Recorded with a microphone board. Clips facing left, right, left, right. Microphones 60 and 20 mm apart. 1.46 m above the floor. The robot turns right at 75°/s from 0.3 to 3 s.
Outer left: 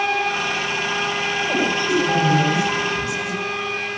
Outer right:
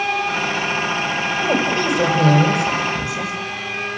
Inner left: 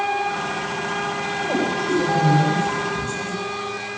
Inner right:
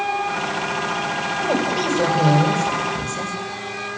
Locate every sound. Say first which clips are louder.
1.4 s a woman speaking: outer right 3 dB, inner right 1 dB; 145° right, 8 m; by 3.3 s 25° right, 8 m